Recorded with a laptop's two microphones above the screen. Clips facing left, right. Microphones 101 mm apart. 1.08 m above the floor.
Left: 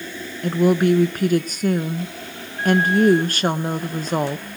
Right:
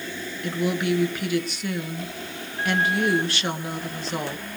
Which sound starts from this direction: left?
A woman speaking, at 0.4 s.